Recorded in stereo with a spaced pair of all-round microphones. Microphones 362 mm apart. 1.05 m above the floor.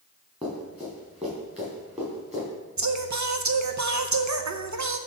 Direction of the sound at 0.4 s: 15° right (ahead or behind).